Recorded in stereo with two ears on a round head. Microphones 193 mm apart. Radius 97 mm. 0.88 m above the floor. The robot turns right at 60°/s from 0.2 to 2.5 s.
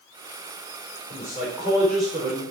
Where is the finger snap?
I don't hear a finger snap.